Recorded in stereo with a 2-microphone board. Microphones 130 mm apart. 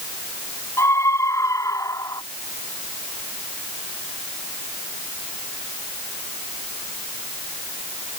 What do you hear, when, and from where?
0.8 s a scream: 20° left (ahead or behind); by 2.2 s 25° left (ahead or behind)